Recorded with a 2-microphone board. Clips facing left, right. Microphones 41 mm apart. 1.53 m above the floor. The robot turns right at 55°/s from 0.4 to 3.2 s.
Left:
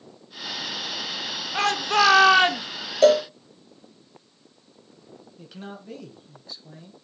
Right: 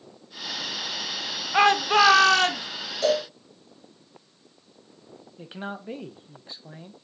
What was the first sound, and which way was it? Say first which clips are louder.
A shout: right 3 dB; 30° right.